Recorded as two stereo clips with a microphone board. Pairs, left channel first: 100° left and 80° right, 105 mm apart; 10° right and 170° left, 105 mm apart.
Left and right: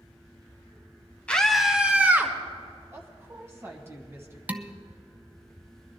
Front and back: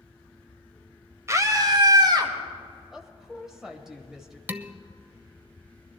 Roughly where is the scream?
Behind.